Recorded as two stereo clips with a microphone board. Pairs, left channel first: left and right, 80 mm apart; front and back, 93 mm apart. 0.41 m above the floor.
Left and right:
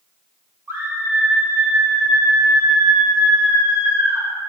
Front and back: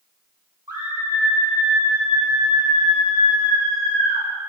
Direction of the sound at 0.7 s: 150° right.